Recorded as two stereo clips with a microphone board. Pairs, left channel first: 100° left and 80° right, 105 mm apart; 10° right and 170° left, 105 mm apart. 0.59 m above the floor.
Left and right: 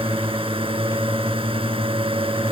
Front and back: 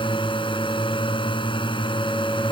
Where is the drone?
50° right.